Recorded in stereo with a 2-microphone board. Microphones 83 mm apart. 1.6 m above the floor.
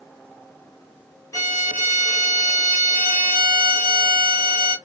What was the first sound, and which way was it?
A violin, 40° left (ahead or behind).